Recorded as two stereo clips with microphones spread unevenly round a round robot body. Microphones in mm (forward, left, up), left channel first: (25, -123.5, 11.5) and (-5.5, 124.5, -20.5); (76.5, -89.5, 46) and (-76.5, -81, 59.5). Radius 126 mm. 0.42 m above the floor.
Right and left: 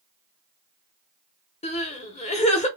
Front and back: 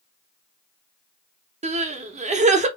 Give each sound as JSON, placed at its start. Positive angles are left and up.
{"t": 1.6, "sound": "crying", "azimuth_deg": -150, "distance_m": 0.7}